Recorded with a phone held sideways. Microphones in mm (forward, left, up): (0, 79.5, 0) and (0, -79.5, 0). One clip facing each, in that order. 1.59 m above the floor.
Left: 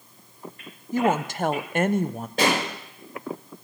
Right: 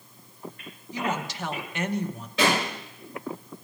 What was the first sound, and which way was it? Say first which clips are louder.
A woman speaking: left 8 dB; 50° left (ahead or behind).